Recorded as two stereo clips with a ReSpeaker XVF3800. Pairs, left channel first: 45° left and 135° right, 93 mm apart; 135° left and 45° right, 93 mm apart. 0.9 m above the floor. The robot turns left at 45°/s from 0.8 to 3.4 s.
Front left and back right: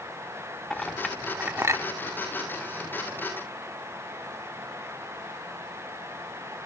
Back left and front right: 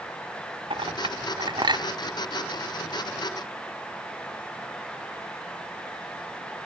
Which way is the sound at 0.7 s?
35° right.